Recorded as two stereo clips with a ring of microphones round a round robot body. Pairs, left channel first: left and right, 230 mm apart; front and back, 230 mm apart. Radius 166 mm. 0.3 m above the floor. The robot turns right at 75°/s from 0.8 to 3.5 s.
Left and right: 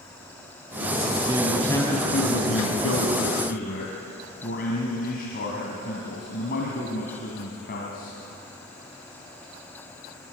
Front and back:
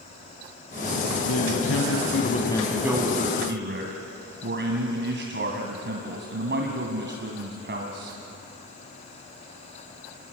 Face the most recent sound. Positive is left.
turn(degrees=145)